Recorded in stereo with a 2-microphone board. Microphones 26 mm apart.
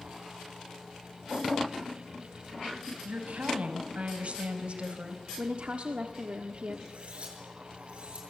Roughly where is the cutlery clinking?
Right.